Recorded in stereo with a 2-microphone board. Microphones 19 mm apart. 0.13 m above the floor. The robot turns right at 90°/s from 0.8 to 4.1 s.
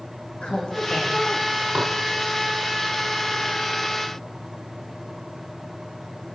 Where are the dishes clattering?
40° right (ahead or behind), 3 m; by 2.0 s 55° right (ahead or behind), 3 m.